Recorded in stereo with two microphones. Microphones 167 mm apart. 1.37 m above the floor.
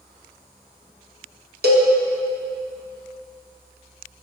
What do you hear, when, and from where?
1.6 s a cowbell: 65° right (ahead or behind), 0.9 m